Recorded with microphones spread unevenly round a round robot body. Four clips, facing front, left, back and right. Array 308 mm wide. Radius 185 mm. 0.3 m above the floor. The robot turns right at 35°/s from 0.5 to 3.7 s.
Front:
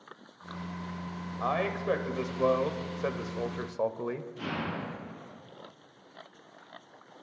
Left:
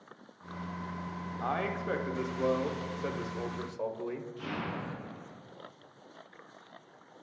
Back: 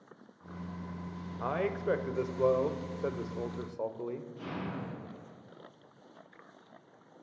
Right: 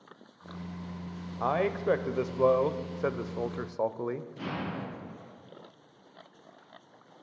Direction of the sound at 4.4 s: 65° right.